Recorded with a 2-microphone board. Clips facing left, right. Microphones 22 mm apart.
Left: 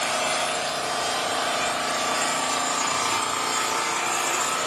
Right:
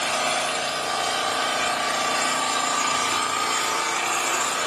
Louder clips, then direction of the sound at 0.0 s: Right 1 dB; 20° right (ahead or behind).